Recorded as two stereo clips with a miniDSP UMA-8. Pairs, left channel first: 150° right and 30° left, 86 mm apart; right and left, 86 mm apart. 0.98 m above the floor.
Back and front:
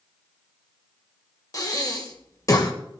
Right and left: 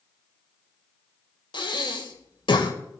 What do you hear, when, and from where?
1.5 s breathing: 105° right, 1.6 m